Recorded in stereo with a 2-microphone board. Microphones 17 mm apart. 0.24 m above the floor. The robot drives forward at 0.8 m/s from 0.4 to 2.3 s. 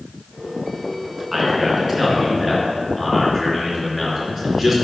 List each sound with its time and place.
1.3 s a man speaking: 5° right (ahead or behind), 2.5 m